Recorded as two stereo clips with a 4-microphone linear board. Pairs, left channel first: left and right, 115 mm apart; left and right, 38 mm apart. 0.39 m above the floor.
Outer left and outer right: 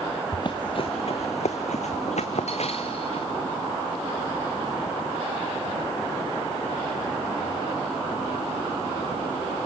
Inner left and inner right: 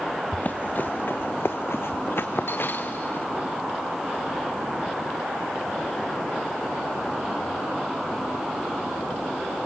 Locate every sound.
0.3 s running footsteps: 40° left (ahead or behind), 1.5 m; by 3.3 s 50° left (ahead or behind), 1.8 m